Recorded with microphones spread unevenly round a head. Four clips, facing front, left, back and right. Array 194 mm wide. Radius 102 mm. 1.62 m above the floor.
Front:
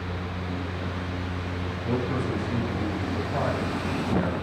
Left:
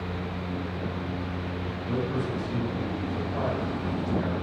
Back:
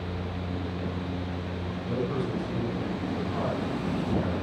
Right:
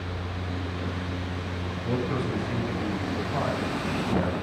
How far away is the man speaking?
About 6.5 m.